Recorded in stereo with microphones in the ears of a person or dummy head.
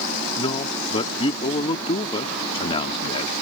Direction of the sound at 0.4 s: 35° left (ahead or behind).